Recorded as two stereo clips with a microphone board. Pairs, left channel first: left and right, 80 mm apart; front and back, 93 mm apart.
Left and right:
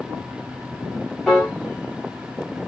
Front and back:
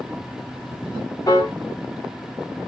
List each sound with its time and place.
1.3 s a piano: 5° left, 0.9 m